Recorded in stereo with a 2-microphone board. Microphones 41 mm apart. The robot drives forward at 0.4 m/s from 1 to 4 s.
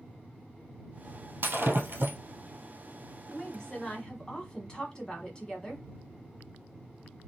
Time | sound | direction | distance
1.4 | breaking glass | 65° right (ahead or behind) | 1.4 m
3.3 | a woman speaking | 15° left (ahead or behind) | 1.2 m